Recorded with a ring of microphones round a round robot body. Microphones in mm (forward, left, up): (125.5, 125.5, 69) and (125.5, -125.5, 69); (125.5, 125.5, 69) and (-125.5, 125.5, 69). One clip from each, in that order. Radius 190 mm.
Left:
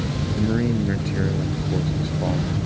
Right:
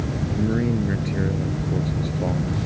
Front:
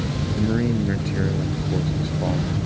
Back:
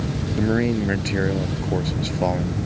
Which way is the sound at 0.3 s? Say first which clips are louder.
Left 1 dB, back 3 dB; 175° left.